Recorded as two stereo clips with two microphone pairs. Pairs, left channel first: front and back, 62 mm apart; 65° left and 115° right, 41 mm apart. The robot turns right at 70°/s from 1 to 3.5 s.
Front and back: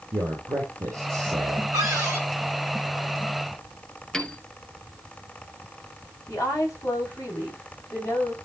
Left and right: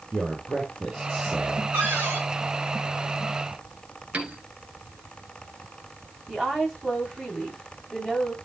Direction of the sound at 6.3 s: 25° right.